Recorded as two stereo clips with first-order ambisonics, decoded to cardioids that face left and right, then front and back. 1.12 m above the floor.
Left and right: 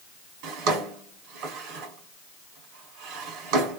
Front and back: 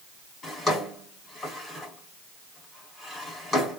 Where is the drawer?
75° right, 1.9 m.